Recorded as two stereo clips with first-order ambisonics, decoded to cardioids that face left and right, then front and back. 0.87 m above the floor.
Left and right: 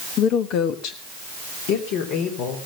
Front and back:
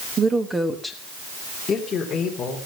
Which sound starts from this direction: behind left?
A woman speaking, at 0.2 s.